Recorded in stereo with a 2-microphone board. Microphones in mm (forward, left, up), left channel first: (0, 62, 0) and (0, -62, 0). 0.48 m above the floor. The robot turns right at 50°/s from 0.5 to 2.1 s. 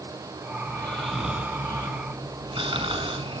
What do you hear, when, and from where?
0.7 s snoring: 160° left, 5 m; by 3.4 s 130° right, 5 m